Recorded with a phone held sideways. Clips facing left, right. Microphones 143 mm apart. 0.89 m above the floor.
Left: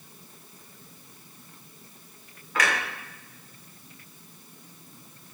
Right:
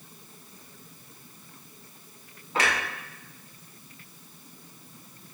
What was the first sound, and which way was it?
A clunk, 25° right (ahead or behind).